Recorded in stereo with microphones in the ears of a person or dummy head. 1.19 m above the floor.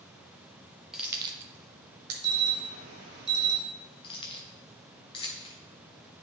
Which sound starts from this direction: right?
An alarm, at 2.2 s.